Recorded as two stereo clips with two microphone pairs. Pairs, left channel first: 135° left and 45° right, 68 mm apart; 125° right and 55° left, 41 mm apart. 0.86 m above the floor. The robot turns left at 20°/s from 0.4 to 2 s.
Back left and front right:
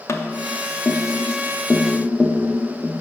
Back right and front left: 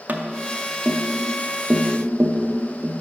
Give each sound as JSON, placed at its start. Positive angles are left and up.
{"t": 0.1, "sound": "tapping", "azimuth_deg": 95, "distance_m": 0.5}